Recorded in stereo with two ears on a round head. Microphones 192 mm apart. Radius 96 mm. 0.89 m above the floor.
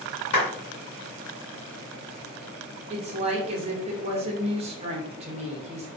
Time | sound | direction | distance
0.3 | a clap | 75° left (ahead or behind) | 1.0 m
2.9 | a woman speaking | 30° right (ahead or behind) | 0.7 m